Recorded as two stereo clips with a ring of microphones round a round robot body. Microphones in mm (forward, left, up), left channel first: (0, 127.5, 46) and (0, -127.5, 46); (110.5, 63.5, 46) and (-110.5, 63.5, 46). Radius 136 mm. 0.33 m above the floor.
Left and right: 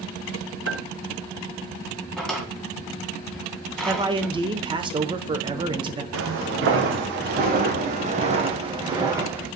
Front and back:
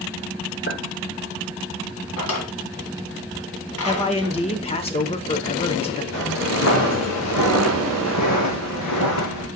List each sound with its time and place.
0.7 s a clink: 55° right, 4 m
2.2 s a drawer: straight ahead, 2 m
3.9 s a man speaking: 35° right, 1.0 m
6.1 s footsteps: 45° right, 2.5 m; by 9.5 s 5° right, 2 m